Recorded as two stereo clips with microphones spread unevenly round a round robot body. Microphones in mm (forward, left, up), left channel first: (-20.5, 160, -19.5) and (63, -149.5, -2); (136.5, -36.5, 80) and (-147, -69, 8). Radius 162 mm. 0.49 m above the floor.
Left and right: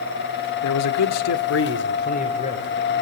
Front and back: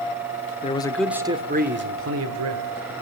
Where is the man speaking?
85° left, 1.1 m; by 2.9 s straight behind, 2.0 m.